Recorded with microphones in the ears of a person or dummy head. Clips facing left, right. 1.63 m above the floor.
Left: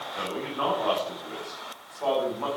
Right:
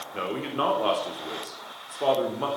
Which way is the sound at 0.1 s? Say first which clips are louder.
Right 3 dB; 45° right (ahead or behind).